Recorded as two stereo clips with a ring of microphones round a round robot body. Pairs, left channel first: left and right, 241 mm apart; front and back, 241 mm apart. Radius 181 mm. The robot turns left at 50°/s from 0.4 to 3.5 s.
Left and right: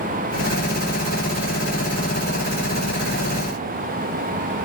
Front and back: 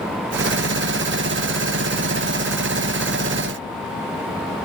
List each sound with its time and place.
Only background noise.